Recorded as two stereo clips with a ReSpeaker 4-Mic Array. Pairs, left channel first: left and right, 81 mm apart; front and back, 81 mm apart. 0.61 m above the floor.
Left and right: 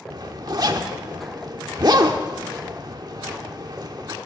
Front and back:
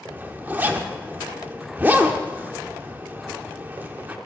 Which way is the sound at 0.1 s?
115° right.